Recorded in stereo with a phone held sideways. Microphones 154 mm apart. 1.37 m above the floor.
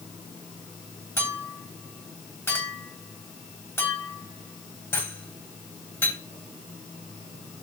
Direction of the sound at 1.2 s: 15° left (ahead or behind).